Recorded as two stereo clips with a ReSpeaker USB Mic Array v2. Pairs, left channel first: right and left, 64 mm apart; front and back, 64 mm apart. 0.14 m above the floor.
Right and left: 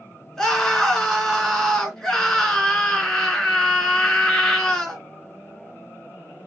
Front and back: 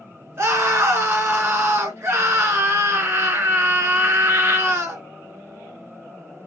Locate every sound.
0.4 s a scream: 170° right, 2 m